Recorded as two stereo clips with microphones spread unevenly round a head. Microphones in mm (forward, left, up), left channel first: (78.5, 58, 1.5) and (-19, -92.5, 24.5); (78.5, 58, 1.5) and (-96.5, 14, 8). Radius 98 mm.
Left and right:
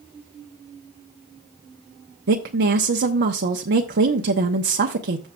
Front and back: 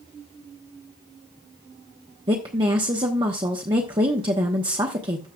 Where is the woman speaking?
100° right, 0.8 m.